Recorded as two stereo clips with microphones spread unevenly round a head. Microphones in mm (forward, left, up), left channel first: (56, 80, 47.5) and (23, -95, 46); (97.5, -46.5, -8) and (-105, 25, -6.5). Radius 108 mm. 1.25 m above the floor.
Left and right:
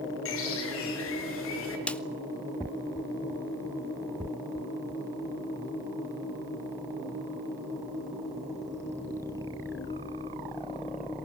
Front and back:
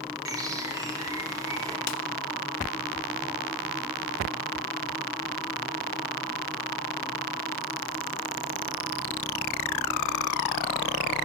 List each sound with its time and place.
0.2 s a bird: 85° left, 5 m
1.9 s a snare drum: 5° right, 1.3 m